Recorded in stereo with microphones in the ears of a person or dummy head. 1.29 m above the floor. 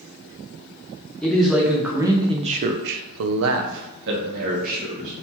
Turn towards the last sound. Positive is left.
turn(degrees=-45)  # may be behind; listen again after turning